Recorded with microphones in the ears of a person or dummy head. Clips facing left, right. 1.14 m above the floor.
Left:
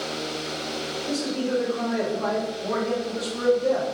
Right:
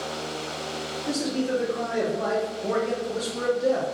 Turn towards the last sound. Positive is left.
turn(degrees=-30)  # may be behind; listen again after turning